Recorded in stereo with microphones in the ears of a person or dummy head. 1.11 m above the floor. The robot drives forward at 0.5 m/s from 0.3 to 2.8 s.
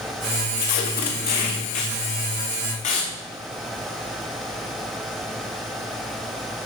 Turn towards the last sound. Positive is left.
turn(degrees=30)  # may be behind; listen again after turning